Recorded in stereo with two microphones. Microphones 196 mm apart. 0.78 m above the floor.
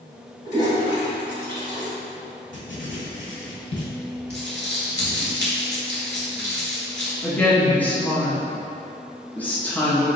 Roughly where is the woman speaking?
Centre.